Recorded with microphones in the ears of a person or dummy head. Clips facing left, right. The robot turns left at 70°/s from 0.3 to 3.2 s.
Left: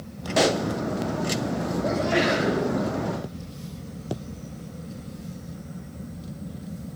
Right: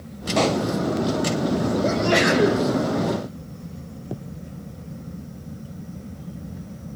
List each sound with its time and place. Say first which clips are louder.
0.4 s a pop: right 1 dB; 5° left (ahead or behind), 0.8 m; by 0.7 s 15° left (ahead or behind), 0.8 m
1.8 s a sneeze: right 1 dB; 40° right, 6 m; by 2.6 s 100° right, 6 m